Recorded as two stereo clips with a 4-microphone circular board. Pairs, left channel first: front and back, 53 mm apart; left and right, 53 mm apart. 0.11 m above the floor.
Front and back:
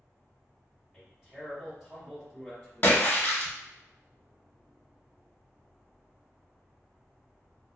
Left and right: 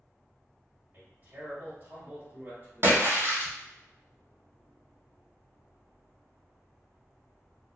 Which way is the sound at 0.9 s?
100° right.